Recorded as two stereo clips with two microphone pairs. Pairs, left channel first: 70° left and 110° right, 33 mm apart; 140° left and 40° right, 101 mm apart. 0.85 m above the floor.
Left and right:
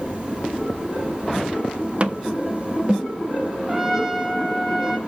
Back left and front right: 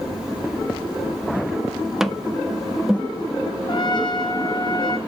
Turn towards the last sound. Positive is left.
turn(degrees=175)